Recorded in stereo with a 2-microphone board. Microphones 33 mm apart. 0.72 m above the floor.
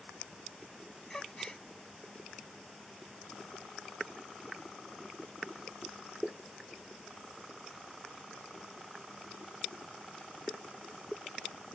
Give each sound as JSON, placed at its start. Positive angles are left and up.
{"t": 1.1, "sound": "a gasp", "side_deg": 15}